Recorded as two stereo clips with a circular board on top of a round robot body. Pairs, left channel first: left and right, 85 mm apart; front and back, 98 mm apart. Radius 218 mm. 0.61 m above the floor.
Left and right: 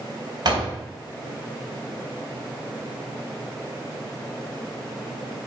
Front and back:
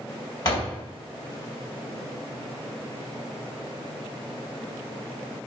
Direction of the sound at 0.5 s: 50° right.